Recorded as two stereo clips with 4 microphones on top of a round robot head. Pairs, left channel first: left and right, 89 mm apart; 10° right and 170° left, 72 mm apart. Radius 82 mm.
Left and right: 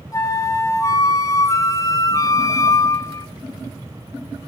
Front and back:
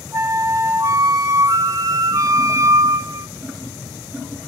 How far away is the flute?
About 2.5 m.